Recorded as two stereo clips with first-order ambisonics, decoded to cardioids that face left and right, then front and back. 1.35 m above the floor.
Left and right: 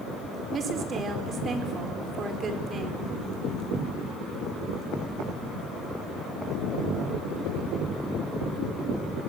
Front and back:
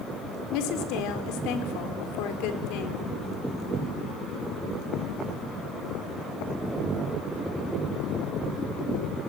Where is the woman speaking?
25° right, 4.5 m.